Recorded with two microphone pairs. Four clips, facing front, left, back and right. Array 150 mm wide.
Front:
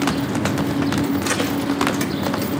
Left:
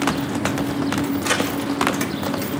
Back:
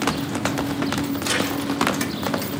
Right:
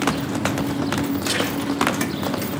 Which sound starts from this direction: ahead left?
A crack, at 1.2 s.